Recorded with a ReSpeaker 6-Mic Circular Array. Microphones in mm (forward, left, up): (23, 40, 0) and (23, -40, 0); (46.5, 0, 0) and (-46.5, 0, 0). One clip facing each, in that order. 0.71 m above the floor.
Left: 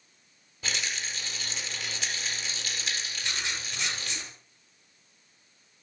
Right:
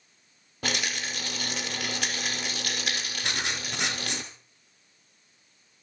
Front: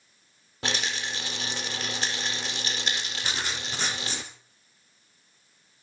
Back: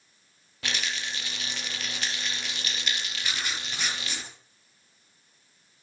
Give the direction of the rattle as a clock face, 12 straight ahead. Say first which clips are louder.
Right 4 dB, front 3 dB; 2 o'clock.